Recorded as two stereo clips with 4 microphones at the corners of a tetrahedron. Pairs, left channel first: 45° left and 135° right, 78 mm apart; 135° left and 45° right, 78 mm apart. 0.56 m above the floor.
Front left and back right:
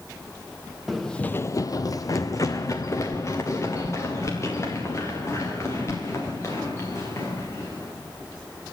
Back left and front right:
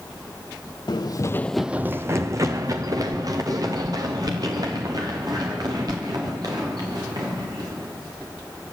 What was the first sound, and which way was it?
Running footsteps, 135° left.